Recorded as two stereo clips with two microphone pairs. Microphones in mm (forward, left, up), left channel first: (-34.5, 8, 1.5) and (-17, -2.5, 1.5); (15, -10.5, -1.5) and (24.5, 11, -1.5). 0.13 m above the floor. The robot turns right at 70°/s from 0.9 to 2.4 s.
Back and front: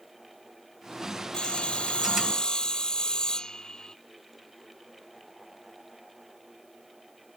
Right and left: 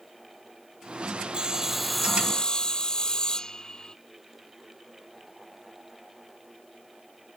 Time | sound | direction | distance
1.3 | sawing | 115° left | ?